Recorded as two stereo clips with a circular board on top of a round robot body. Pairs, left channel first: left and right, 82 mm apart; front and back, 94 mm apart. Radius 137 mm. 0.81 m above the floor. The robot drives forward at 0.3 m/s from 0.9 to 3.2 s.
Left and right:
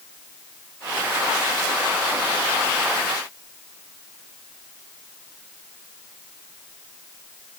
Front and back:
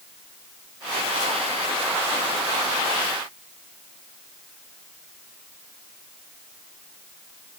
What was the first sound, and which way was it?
Only background noise.